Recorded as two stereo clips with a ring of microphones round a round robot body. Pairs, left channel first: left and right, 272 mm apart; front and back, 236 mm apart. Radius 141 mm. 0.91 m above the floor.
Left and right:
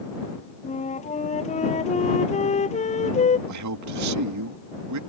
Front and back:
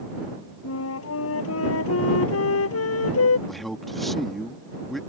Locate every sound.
0.6 s a flute: 25° left
3.5 s a man speaking: 90° right